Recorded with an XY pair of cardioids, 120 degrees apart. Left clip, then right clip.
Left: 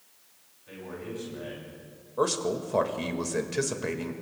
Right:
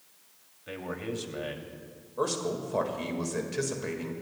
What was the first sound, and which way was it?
A man speaking, 60° right.